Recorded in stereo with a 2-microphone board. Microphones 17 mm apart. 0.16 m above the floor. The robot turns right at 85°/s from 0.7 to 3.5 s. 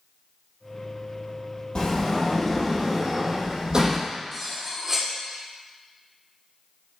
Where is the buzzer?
No buzzer in this recording.